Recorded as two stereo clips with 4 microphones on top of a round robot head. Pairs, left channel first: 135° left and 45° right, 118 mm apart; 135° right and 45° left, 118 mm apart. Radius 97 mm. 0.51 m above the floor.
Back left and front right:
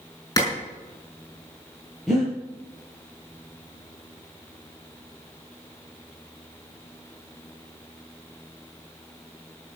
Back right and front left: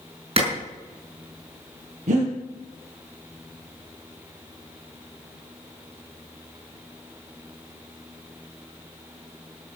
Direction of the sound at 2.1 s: 40° left.